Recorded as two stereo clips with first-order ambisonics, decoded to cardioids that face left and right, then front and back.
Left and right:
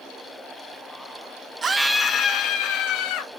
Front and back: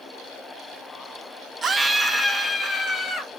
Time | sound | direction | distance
1.6 | a scream | 135° right | 0.7 m